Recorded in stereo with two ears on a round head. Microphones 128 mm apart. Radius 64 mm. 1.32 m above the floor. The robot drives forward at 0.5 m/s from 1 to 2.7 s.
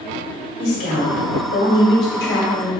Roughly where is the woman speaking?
Left.